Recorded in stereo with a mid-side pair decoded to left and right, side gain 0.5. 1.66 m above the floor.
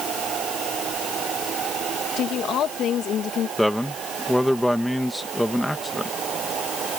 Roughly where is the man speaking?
Ahead.